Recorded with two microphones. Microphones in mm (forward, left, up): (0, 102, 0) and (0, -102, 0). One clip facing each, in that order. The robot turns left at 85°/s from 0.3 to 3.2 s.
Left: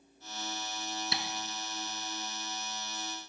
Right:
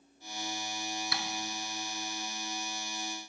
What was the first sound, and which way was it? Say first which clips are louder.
Tapping: left 1 dB; 25° left (ahead or behind).